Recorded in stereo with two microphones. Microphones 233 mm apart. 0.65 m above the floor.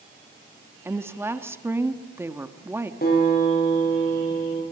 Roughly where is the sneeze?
No sneeze in this recording.